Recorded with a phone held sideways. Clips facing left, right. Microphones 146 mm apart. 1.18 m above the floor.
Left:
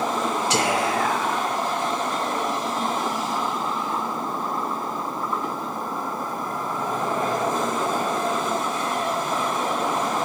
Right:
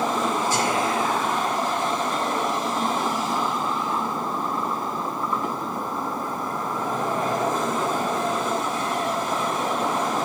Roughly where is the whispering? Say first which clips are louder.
Left 1 dB; left.